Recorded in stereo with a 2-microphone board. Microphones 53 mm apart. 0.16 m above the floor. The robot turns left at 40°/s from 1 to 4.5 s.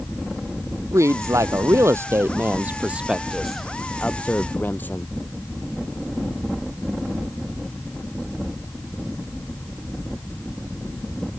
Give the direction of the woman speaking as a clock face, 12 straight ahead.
3 o'clock.